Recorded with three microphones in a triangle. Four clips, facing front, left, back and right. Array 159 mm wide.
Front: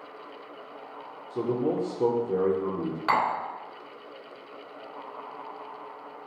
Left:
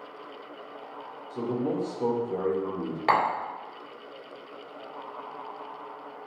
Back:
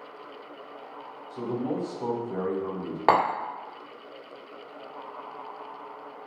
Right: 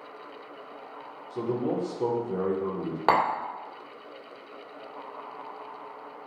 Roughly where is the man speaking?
Ahead.